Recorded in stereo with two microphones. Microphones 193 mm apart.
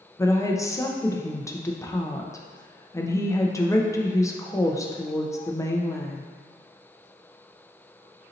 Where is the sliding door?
I don't hear a sliding door.